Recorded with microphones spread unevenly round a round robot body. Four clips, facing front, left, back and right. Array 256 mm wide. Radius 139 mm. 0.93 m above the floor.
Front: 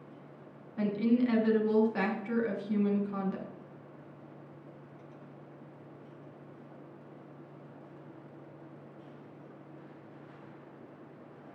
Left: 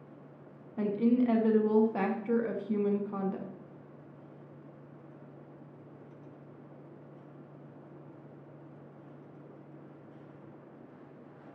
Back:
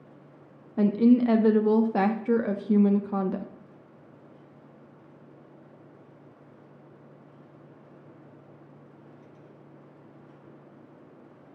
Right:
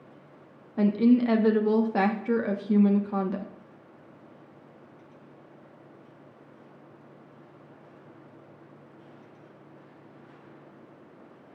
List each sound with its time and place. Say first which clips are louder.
0.8 s a woman speaking: right 6 dB, back 8 dB; 125° right, 0.9 m